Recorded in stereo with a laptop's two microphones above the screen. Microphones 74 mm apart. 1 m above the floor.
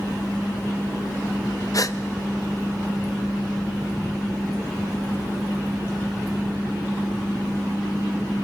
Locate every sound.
1.7 s a gasp: 50° left (ahead or behind), 0.6 m